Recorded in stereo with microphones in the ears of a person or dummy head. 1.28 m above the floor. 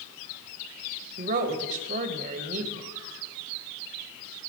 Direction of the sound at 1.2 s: 45° right (ahead or behind).